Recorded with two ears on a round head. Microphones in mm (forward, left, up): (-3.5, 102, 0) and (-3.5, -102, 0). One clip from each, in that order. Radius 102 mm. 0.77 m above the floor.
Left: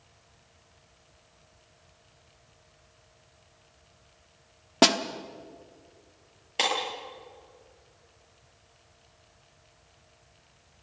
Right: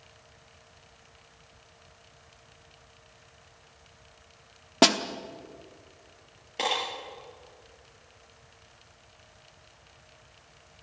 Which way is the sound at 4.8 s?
Centre (ahead or behind).